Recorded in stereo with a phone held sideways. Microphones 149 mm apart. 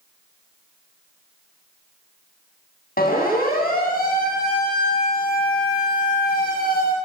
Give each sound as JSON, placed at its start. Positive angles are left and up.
{"t": 3.0, "sound": "a siren", "side_deg": 80, "distance_m": 10.0}